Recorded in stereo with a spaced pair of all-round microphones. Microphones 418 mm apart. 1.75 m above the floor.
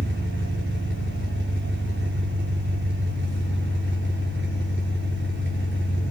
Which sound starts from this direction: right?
An engine running, at 0.0 s.